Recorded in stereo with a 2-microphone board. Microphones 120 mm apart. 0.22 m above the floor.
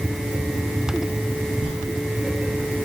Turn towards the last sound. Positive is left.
turn(degrees=60)  # may be behind; listen again after turning